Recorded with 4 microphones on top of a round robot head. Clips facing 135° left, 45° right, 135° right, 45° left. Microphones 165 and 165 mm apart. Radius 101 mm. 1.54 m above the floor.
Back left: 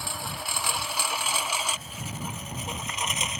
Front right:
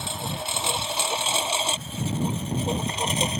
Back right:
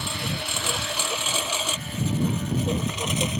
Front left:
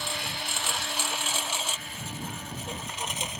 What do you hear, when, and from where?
0.0 s a lawn mower: 115° right; by 3.4 s 105° right